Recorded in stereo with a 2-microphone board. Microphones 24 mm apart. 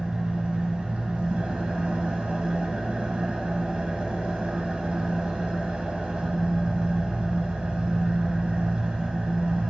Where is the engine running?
65° right (ahead or behind), 1.3 m.